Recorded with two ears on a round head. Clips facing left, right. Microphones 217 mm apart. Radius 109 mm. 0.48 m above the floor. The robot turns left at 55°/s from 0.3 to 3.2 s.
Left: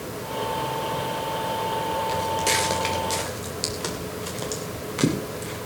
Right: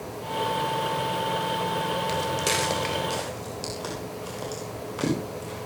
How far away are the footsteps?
About 5 m.